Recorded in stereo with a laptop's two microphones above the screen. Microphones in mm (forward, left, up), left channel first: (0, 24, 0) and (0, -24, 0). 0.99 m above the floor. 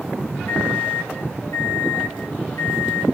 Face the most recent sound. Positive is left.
turn(degrees=85)